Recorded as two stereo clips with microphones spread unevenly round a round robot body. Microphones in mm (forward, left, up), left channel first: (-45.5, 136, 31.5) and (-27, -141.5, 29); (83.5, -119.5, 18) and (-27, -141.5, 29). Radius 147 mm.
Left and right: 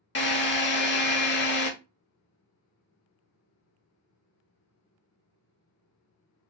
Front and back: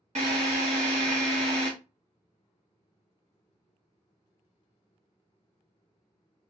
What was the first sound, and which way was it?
A drill, 145° left.